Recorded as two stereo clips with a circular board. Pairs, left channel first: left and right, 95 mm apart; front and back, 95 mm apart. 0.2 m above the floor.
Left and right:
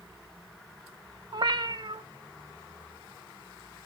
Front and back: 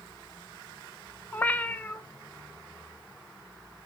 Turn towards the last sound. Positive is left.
turn(degrees=-70)